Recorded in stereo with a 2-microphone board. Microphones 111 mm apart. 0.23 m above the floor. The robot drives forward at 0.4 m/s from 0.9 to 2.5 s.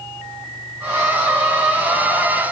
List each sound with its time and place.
Only background noise.